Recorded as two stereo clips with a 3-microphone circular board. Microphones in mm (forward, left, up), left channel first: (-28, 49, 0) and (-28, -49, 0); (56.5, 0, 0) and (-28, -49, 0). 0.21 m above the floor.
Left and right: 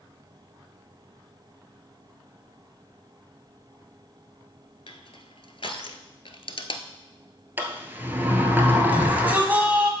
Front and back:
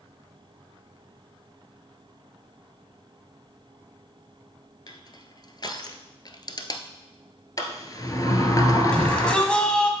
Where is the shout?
40° right, 1.6 m.